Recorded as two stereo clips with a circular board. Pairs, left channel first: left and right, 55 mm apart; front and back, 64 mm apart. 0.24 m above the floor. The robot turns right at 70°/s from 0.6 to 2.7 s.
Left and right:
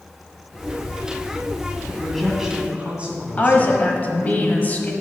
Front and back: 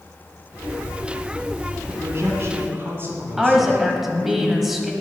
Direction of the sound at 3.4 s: 100° left.